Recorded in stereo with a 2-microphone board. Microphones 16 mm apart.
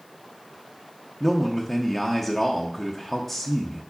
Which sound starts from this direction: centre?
A man speaking, at 1.2 s.